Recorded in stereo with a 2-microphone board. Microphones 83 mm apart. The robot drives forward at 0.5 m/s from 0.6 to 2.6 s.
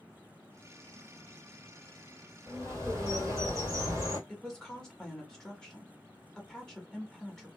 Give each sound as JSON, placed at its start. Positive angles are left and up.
{"t": 2.5, "sound": "a bird", "side_deg": -35, "distance_m": 1.9}
{"t": 4.3, "sound": "a woman speaking", "side_deg": 5, "distance_m": 1.0}